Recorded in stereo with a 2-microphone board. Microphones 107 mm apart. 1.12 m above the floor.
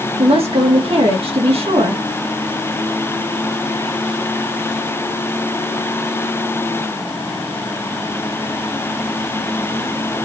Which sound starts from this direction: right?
A woman speaking, at 0.2 s.